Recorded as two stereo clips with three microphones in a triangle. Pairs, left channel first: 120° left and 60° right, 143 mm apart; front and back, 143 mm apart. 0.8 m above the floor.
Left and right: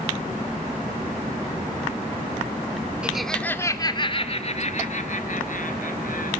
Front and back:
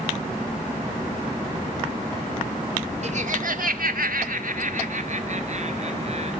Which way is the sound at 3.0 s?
140° right.